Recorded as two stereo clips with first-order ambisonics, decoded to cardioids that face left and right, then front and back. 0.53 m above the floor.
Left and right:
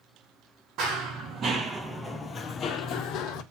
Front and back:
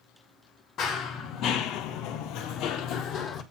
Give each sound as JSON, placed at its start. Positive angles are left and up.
{"t": 0.8, "sound": "running footsteps", "azimuth_deg": -55, "distance_m": 1.3}